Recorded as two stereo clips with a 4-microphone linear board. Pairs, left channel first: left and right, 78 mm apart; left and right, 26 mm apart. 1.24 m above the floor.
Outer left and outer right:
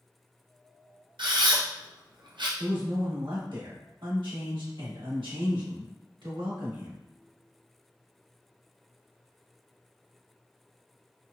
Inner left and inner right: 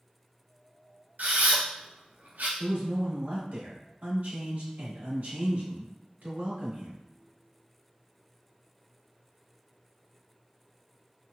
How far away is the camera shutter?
About 0.6 m.